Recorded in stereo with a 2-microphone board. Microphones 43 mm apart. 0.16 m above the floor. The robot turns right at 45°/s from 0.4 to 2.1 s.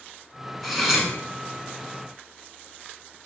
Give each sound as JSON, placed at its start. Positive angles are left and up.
{"t": 0.6, "sound": "cutlery clinking", "side_deg": 0, "distance_m": 0.7}